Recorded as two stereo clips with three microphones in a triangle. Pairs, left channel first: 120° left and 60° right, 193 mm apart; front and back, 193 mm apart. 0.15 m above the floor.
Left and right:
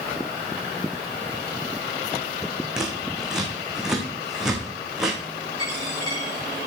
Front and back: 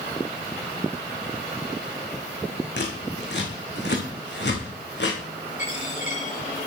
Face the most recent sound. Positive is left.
turn(degrees=50)